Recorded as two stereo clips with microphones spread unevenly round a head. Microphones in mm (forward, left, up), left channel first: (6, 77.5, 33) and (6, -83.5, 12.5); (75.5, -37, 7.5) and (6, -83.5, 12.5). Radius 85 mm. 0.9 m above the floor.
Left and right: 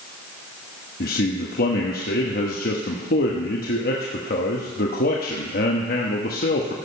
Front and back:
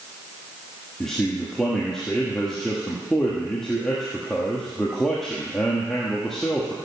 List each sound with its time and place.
1.0 s a man speaking: 120° left, 1.3 m